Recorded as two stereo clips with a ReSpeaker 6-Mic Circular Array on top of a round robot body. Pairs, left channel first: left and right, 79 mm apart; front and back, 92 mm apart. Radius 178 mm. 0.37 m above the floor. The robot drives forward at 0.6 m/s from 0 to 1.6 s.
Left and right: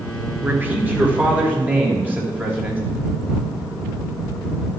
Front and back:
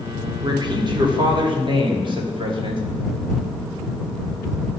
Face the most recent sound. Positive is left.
turn(degrees=-160)